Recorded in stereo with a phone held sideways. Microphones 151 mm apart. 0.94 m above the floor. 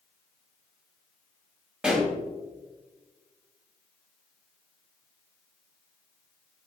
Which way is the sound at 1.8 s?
5° right (ahead or behind).